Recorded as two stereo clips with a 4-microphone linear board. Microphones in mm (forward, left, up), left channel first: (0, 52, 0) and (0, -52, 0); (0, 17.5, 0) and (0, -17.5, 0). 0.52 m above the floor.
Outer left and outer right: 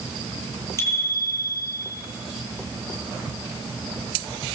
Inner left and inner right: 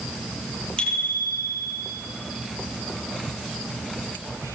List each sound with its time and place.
0.8 s a bicycle bell: 30° left (ahead or behind), 8.5 m